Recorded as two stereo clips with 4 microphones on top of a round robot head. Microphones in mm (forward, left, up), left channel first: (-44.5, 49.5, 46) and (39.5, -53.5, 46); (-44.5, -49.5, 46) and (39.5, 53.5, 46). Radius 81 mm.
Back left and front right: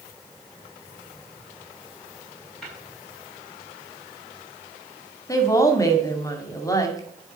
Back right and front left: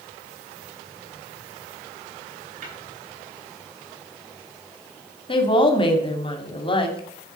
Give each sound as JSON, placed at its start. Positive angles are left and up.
{"t": 2.6, "sound": "tapping", "azimuth_deg": 45, "distance_m": 6.5}
{"t": 5.3, "sound": "a woman speaking", "azimuth_deg": -170, "distance_m": 2.0}